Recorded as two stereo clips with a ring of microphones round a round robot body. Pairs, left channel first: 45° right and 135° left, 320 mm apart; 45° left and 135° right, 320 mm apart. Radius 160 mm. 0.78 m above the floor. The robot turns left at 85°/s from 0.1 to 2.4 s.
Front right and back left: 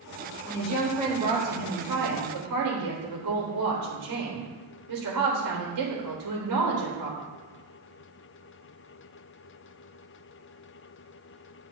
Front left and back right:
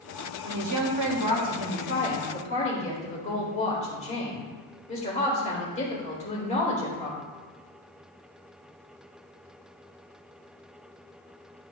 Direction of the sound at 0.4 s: 80° right.